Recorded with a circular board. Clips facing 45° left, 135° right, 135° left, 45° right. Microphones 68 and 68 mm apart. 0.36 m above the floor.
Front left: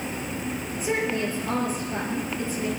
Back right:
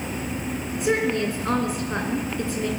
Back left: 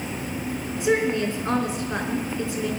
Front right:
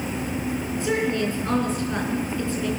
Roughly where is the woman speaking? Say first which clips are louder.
Back right 4 dB, back left 3 dB; behind right.